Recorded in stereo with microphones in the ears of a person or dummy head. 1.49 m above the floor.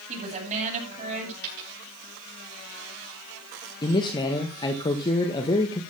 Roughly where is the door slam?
No door slam in this recording.